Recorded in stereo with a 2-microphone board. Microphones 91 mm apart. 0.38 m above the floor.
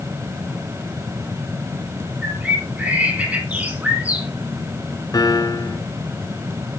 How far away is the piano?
About 1.2 m.